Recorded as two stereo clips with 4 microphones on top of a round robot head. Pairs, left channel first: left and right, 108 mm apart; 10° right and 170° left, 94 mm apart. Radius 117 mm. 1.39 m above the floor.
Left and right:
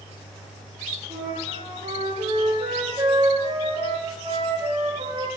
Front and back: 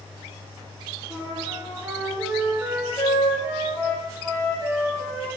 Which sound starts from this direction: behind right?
A flute, at 1.1 s.